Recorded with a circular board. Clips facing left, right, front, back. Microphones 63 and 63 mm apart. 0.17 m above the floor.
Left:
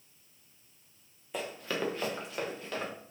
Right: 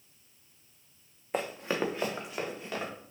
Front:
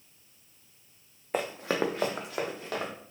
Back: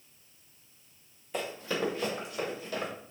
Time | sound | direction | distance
1.3 | running footsteps | 45° right | 0.7 m